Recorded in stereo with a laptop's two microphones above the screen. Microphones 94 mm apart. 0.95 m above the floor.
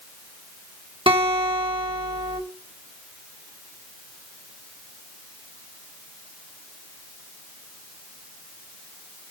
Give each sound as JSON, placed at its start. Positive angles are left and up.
{"t": 1.1, "sound": "a guitar", "side_deg": -65, "distance_m": 2.5}